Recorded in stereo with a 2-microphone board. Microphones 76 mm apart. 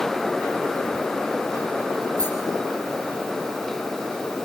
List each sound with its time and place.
2.2 s a rattle: 45° right (ahead or behind), 7 m